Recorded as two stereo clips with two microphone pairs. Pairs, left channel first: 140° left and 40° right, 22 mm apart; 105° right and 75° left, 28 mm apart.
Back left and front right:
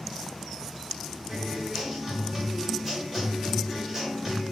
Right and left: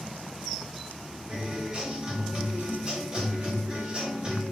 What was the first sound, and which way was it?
A guitar, 30° left.